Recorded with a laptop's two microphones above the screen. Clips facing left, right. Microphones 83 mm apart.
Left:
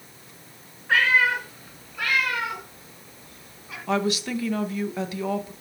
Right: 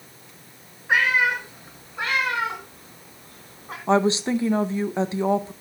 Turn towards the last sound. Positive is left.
turn(degrees=-30)  # may be behind; listen again after turning